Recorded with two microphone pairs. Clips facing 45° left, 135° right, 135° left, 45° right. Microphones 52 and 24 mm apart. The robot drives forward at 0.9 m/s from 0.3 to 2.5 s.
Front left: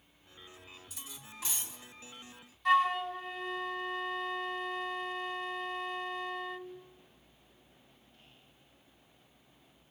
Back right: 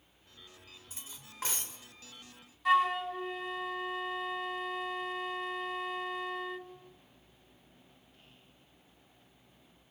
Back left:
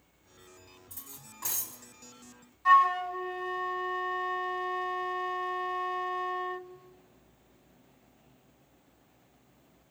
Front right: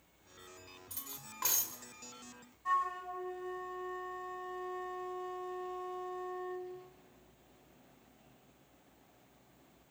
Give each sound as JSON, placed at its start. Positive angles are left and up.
{"t": 0.9, "sound": "cutlery clinking", "azimuth_deg": -80, "distance_m": 2.0}
{"t": 2.6, "sound": "a flute", "azimuth_deg": 140, "distance_m": 1.1}